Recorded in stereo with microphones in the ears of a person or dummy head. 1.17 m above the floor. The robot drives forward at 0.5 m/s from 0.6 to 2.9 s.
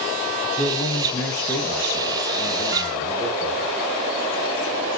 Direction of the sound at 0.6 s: 15° left (ahead or behind).